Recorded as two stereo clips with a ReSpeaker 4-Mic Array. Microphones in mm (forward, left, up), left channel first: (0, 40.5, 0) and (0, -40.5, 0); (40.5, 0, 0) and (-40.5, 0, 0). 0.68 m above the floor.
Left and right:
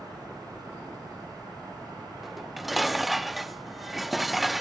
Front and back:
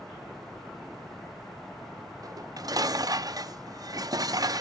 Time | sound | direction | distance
2.2 | dishes clattering | straight behind | 0.6 m